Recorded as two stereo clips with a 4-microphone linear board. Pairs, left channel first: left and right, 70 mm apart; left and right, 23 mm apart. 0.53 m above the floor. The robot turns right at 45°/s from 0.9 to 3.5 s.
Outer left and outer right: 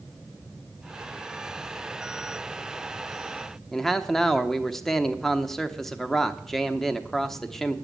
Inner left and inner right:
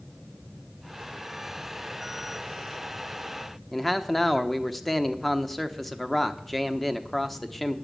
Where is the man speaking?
5° left (ahead or behind), 0.9 m.